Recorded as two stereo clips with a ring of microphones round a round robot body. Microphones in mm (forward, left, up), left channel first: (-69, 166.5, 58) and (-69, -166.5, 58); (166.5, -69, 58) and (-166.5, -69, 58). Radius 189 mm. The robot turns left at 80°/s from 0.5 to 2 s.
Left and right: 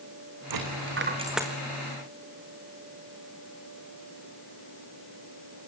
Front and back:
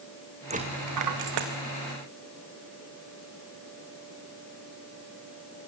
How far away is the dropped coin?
About 4 m.